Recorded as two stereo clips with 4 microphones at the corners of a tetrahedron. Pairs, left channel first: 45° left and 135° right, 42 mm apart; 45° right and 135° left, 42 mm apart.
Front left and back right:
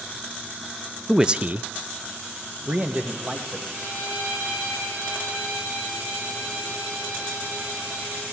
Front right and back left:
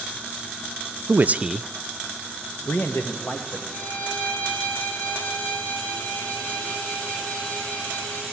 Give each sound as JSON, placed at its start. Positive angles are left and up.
{"t": 1.1, "sound": "a man speaking", "azimuth_deg": 145, "distance_m": 0.6}
{"t": 3.7, "sound": "a violin", "azimuth_deg": -95, "distance_m": 5.0}